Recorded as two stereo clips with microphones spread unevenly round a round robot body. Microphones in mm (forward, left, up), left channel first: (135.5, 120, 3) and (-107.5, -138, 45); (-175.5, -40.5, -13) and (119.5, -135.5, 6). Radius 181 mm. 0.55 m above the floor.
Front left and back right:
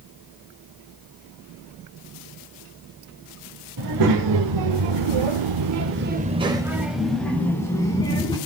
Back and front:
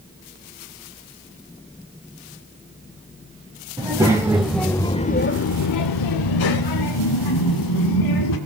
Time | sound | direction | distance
3.8 | a child speaking | 95° right | 1.9 m